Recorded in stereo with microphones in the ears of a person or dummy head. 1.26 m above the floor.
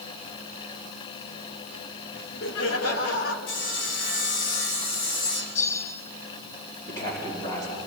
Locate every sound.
2.1 s laughter: 65° left (ahead or behind), 2.5 m; by 3.4 s 70° left (ahead or behind), 2 m
3.5 s sawing: 75° left (ahead or behind), 4.5 m
5.5 s a bell: 60° left (ahead or behind), 7 m
6.9 s a man speaking: 20° left (ahead or behind), 3.5 m